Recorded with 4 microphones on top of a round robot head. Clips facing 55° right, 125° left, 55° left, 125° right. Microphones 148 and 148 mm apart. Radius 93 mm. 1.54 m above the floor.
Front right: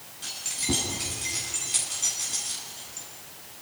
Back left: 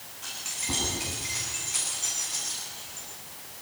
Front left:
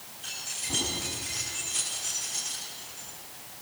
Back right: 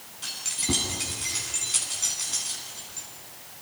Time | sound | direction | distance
0.2 | keys jangling | 110° right | 10 m